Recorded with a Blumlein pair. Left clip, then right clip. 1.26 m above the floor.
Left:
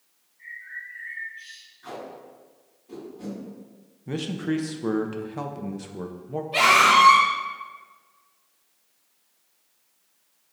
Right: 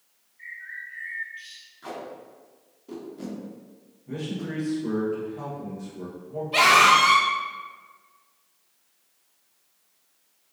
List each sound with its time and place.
0.4 s a bird: 30° right, 1.3 m
1.8 s tape being pulled: 45° right, 1.5 m
4.1 s a man speaking: 35° left, 0.5 m
6.5 s a scream: 15° right, 1.5 m